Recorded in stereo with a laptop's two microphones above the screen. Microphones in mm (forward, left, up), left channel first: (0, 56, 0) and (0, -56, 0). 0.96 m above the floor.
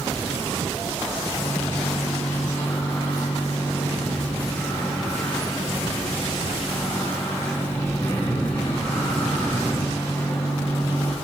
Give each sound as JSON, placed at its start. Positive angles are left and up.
{"t": 1.4, "sound": "a microwave", "side_deg": 15, "distance_m": 1.3}